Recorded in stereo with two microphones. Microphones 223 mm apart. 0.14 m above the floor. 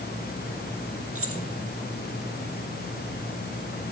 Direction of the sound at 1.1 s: 75° right (ahead or behind).